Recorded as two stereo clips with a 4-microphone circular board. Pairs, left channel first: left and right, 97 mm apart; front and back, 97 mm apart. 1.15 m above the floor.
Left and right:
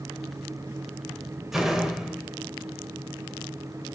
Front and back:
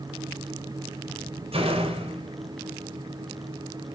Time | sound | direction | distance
1.5 | a door slam | straight behind | 3 m